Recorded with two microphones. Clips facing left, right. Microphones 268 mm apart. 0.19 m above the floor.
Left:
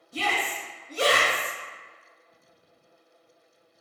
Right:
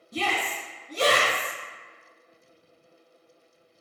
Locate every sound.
0.1 s a shout: 40° right (ahead or behind), 1.7 m